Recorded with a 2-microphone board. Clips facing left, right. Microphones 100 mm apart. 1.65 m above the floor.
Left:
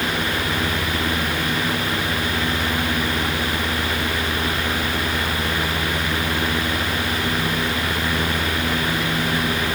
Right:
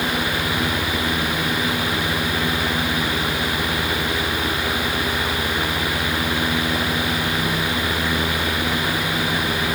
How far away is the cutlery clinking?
I don't hear cutlery clinking.